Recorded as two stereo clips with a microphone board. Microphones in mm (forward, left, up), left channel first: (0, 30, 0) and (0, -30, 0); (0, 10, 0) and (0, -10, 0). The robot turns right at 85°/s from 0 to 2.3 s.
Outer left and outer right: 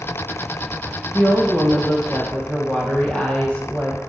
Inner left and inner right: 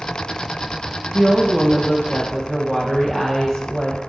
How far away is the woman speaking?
About 2.0 m.